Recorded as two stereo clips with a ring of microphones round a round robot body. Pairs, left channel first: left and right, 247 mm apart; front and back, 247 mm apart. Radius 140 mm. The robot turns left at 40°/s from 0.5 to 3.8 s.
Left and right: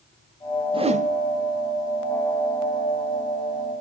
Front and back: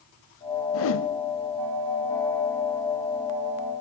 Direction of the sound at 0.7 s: 20° right.